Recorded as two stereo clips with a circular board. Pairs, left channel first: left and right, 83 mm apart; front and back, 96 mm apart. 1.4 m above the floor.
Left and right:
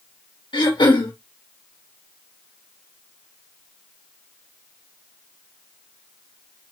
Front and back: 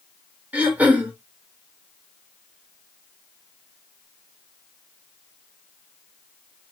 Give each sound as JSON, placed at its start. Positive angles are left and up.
{"t": 0.5, "sound": "throat clearing", "azimuth_deg": 105, "distance_m": 3.0}